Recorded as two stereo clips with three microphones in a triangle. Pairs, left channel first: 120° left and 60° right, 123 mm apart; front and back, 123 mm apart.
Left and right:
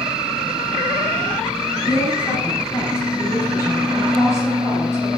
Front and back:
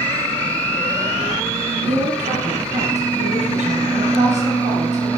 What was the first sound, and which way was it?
A woman speaking, straight behind.